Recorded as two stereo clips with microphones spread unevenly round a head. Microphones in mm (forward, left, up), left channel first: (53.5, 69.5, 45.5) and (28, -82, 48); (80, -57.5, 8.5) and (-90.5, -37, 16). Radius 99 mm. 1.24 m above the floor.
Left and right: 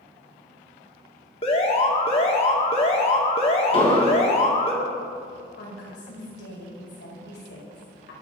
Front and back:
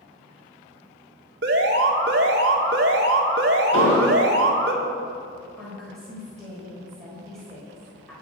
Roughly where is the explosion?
Ahead left.